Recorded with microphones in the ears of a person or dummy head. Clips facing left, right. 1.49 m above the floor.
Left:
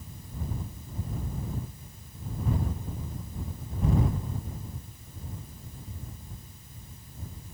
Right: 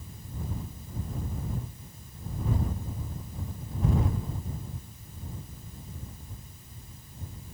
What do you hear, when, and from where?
Only background noise.